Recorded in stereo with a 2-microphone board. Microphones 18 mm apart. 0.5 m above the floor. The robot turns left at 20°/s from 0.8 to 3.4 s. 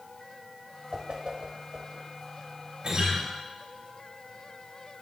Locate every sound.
0.9 s a whoosh: 75° right (ahead or behind), 1.0 m; by 2.0 s 65° right (ahead or behind), 1.0 m
2.8 s a guitar: 60° right (ahead or behind), 3.5 m; by 3.2 s 55° right (ahead or behind), 3.5 m